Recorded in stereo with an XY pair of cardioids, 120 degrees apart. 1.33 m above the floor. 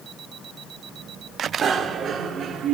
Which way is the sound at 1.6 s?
45° right.